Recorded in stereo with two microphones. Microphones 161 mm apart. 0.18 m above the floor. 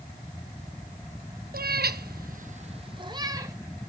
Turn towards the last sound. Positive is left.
turn(degrees=-20)  # may be behind; listen again after turning